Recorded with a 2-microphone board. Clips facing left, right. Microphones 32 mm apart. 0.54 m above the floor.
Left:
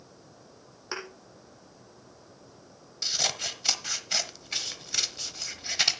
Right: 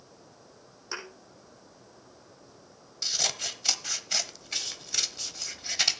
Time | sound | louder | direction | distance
0.9 | a thud | left 2 dB | 25° left (ahead or behind) | 5 m
3.0 | scissors | left 1 dB | 5° left (ahead or behind) | 1.3 m